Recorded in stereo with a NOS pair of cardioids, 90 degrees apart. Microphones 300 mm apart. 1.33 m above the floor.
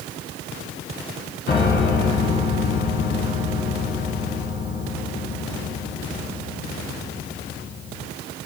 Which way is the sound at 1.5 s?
35° left.